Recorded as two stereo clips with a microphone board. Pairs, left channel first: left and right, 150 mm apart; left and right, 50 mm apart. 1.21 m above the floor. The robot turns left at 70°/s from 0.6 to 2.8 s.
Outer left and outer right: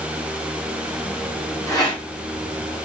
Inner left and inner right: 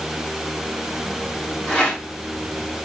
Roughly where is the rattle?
Centre.